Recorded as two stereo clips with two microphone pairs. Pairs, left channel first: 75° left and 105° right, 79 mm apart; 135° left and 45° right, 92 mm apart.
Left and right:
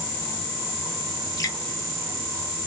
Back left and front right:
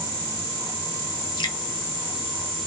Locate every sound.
1.4 s dripping: 110° left, 0.9 m